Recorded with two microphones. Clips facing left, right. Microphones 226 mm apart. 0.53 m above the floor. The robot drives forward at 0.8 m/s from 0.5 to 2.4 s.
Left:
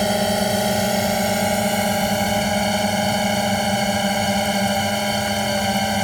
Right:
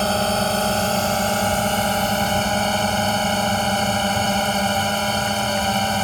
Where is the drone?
15° left (ahead or behind); by 6.0 s 10° left (ahead or behind).